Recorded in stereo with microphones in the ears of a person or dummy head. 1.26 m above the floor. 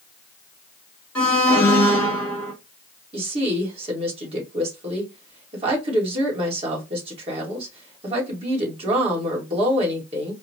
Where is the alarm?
10° left (ahead or behind), 1.6 m.